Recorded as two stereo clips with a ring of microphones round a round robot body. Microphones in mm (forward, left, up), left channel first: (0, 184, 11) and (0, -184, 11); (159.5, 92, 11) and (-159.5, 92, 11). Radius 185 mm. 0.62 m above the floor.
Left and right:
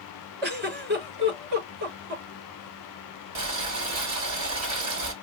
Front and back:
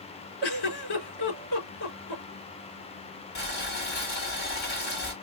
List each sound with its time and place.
0.4 s a giggle: 25° right, 4 m
3.4 s boiling: 55° right, 1.6 m